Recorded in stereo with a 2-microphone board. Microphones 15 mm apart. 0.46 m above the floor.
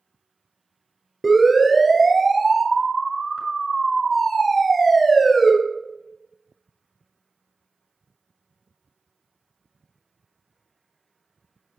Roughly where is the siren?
Centre.